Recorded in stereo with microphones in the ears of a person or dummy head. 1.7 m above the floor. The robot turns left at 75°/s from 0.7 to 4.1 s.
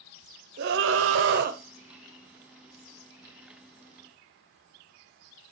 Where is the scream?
65° right, 1.0 m; by 1.6 s 130° right, 1.0 m.